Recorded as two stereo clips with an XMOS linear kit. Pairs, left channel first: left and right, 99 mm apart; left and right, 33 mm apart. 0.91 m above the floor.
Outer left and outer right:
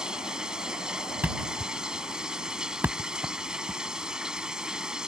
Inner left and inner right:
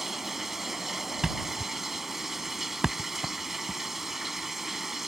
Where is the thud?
20° right (ahead or behind).